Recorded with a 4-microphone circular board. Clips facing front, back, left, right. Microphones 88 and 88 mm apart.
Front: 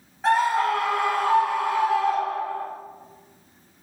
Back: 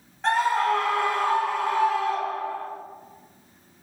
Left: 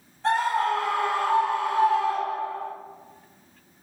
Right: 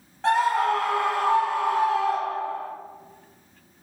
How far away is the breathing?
I don't hear breathing.